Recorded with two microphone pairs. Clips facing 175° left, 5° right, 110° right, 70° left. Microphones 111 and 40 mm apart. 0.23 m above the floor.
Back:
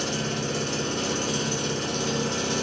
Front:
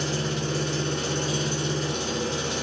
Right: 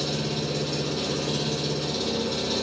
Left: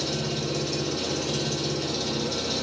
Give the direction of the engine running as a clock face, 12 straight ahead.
7 o'clock.